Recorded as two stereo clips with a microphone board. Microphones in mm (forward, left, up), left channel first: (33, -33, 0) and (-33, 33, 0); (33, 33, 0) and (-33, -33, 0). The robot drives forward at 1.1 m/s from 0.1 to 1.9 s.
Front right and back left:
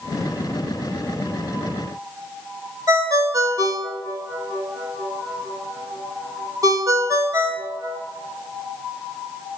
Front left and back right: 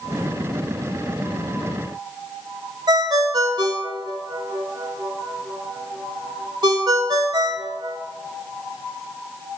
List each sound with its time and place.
2.9 s a ringtone: 175° right, 0.8 m